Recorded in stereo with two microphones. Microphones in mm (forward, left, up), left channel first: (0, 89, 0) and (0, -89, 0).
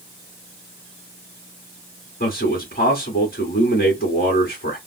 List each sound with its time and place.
2.2 s a man speaking: 55° left (ahead or behind), 2.5 m